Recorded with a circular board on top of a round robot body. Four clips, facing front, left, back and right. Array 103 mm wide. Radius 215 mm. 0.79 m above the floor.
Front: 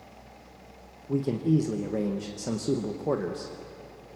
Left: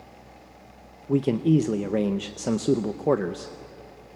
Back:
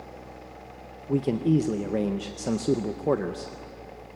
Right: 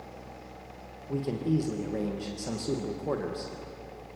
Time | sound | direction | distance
1.1 | a man speaking | 110° left | 1.0 m